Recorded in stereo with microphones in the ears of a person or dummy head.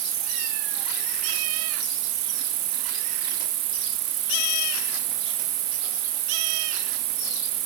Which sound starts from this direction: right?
An insect, at 0.0 s.